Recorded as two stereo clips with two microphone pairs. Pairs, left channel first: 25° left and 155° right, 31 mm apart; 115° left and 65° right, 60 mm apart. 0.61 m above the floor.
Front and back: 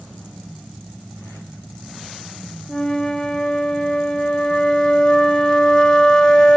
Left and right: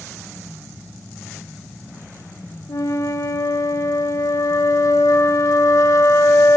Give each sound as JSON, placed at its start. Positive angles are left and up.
{"t": 2.7, "sound": "a flute", "azimuth_deg": 90, "distance_m": 0.7}